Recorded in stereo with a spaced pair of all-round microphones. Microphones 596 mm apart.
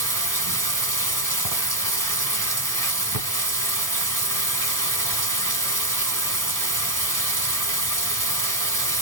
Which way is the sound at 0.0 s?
30° right (ahead or behind).